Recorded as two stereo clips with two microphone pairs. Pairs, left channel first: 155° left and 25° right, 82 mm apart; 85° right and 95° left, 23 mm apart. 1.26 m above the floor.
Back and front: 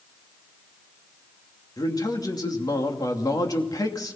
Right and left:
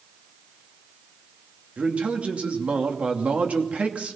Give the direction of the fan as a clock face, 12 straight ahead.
No fan in this recording.